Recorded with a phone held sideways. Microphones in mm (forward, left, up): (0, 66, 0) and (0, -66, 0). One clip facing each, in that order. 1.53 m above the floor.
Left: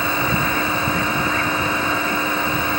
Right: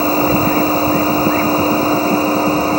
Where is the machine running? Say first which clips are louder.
Right 8 dB; 35° right (ahead or behind).